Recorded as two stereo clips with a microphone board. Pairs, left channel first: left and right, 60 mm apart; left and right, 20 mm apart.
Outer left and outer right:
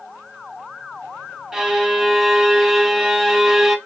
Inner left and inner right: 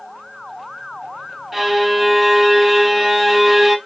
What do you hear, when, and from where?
1.5 s a violin: 10° right (ahead or behind), 0.6 m